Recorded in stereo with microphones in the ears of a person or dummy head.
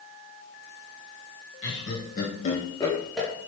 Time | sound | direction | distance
1.6 | laughter | 50° left (ahead or behind) | 1.1 m